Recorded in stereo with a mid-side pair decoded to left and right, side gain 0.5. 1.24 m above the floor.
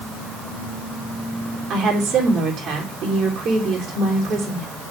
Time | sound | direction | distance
1.7 | a woman speaking | 60° right | 3.5 m